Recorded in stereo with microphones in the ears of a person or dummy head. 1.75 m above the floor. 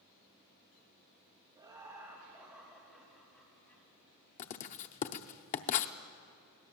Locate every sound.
1.6 s laughter: 20° right (ahead or behind), 3 m; by 3.8 s 15° left (ahead or behind), 3 m
4.4 s writing: 45° left (ahead or behind), 0.7 m